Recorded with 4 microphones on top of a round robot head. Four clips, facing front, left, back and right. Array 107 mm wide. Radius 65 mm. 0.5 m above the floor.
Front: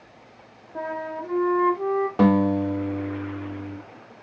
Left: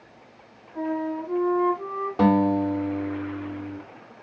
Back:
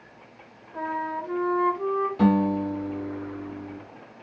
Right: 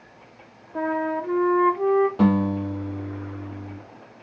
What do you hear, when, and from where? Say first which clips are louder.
0.8 s a flute: right 3 dB, back 1 dB; 65° right, 1.2 m
2.2 s a guitar: left 1 dB, front 3 dB; 10° left, 2 m